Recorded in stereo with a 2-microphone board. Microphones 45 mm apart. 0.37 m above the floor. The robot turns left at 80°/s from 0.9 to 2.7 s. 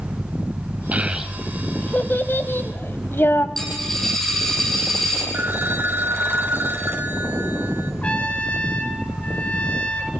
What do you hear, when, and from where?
0.9 s a child speaking: 40° right (ahead or behind), 1.4 m; by 3.5 s 65° left (ahead or behind), 1.4 m
3.6 s a dropped coin: 10° left (ahead or behind), 6.5 m
5.3 s a phone ringing: 60° right (ahead or behind), 1.8 m
8.0 s a trumpet: 30° left (ahead or behind), 1.8 m